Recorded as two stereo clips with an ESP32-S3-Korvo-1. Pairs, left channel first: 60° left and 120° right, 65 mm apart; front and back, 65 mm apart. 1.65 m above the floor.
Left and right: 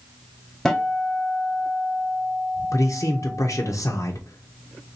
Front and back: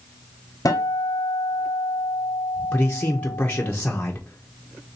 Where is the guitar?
20° right, 0.8 m.